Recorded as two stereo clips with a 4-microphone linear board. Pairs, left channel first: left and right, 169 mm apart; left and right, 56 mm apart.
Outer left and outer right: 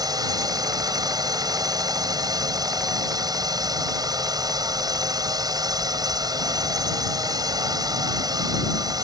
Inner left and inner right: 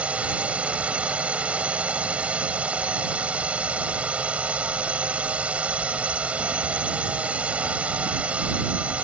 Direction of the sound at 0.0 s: 20° right (ahead or behind).